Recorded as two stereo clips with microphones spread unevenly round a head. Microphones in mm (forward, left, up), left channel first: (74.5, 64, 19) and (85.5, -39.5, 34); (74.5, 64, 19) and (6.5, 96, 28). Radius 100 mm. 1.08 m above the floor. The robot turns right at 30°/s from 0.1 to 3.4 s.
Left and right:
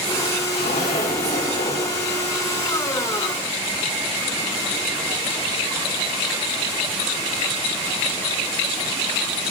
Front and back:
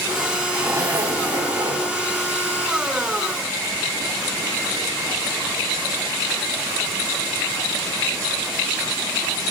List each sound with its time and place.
0.5 s a zipper: 105° left, 5 m; by 2.0 s 145° left, 5 m